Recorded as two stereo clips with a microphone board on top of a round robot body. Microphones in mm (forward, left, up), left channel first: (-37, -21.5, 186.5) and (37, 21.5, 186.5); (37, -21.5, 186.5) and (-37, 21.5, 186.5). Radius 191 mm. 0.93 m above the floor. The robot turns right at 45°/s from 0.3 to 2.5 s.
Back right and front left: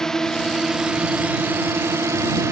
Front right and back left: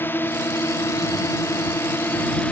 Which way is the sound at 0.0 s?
70° right.